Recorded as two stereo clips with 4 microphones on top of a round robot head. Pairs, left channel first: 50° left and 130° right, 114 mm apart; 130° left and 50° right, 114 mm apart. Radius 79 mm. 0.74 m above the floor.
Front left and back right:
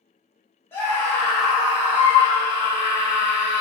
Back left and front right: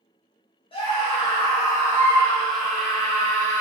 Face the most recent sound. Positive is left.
turn(degrees=-120)